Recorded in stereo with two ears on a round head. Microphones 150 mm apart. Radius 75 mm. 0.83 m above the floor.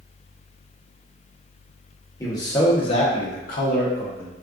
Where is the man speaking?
20° left (ahead or behind), 1.0 m; by 4.3 s 55° left (ahead or behind), 0.9 m.